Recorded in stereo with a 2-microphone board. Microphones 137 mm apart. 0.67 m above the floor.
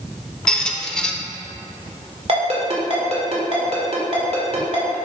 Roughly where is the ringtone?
Right.